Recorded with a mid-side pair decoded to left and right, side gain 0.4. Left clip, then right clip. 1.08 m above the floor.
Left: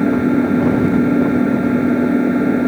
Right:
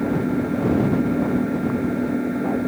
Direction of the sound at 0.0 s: 55° left.